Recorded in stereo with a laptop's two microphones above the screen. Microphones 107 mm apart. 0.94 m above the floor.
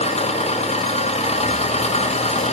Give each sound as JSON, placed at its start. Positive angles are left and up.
{"t": 0.0, "sound": "an engine running", "side_deg": 85, "distance_m": 0.8}